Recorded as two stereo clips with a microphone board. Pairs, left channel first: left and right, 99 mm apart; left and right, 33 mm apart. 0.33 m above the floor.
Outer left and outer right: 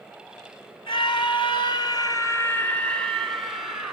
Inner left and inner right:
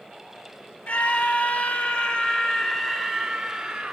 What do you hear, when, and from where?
0.9 s a scream: 65° left (ahead or behind), 2.5 m; by 3.9 s 10° right (ahead or behind), 3 m